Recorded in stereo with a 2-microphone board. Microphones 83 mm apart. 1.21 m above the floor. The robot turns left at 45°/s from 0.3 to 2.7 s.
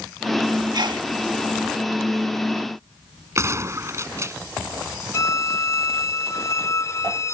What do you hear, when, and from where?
0.7 s a sneeze: 60° right (ahead or behind); by 1.1 s 75° right (ahead or behind)
3.4 s a gunshot: 35° right (ahead or behind)
5.1 s a violin: 40° left (ahead or behind)